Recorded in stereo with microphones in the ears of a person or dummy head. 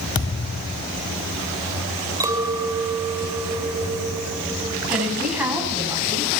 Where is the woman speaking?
10° right (ahead or behind), 8 m.